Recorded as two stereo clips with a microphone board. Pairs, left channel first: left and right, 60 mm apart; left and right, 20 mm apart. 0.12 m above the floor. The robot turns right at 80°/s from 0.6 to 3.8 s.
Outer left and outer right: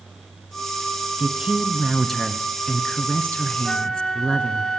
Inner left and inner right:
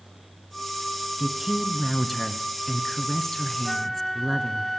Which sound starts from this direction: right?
A woman speaking, at 1.2 s.